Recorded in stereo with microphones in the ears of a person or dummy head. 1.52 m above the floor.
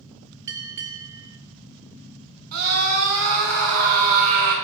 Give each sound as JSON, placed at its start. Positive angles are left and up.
{"t": 0.5, "sound": "a bell", "side_deg": -20, "distance_m": 0.6}
{"t": 2.5, "sound": "a scream", "side_deg": -50, "distance_m": 3.0}